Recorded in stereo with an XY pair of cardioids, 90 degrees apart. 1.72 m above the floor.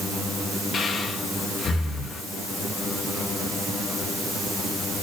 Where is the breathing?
55° left, 2.5 m.